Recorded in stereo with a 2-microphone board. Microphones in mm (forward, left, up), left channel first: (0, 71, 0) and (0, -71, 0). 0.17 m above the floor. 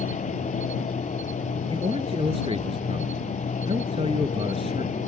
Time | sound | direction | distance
0.0 | an insect | 60° left (ahead or behind) | ?
1.7 | a man speaking | 40° right (ahead or behind) | ?